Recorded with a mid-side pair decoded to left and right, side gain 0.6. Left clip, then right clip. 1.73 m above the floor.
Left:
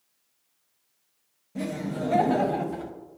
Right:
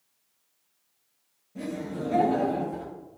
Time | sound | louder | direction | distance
1.6 | laughter | left 2 dB | 40° left | 0.6 m